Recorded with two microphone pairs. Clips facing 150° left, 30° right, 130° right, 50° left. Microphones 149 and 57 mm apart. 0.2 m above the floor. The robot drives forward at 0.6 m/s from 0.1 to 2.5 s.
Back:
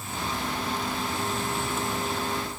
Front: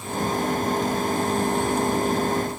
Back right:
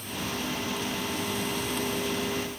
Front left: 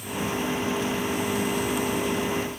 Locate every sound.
Only background noise.